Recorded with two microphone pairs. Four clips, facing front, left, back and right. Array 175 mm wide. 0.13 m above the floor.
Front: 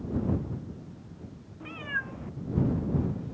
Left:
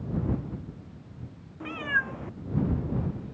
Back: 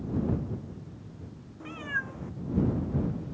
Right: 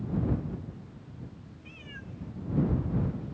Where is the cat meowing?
90° left.